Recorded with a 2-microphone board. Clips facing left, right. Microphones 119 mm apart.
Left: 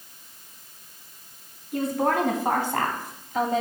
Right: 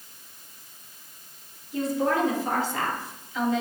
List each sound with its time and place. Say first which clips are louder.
1.7 s a woman speaking: left 1 dB; 65° left (ahead or behind), 3 m; by 3.6 s 40° left (ahead or behind), 1.5 m